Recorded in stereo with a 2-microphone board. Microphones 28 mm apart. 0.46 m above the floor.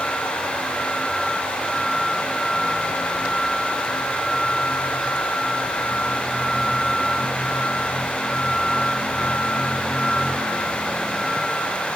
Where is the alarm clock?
No alarm clock in this recording.